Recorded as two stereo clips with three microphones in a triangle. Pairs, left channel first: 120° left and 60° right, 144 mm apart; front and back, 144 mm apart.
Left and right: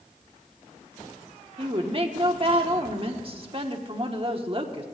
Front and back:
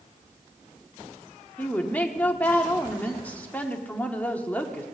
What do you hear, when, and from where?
1.6 s a woman speaking: 75° right, 1.2 m